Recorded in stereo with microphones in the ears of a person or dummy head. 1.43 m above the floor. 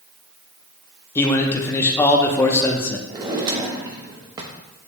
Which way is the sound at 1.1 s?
15° left (ahead or behind).